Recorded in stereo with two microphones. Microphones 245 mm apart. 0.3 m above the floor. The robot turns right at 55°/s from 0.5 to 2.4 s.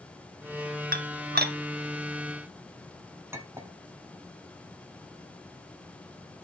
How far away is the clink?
About 1.1 m.